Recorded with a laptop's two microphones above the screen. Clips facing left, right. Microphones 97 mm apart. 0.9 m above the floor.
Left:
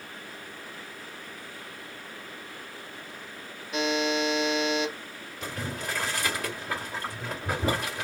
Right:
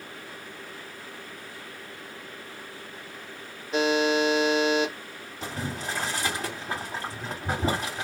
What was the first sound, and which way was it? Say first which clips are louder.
A buzzer: right 4 dB; 35° right (ahead or behind).